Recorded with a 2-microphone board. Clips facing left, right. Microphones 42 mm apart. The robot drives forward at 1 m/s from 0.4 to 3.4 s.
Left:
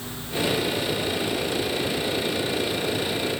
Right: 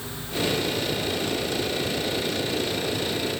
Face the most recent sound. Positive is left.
No sound to turn to.